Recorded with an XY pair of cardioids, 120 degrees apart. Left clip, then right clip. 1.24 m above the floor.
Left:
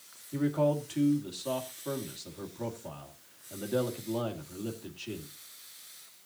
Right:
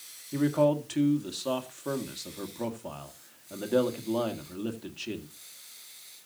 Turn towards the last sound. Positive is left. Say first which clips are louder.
# right 4 dB
turn(degrees=-25)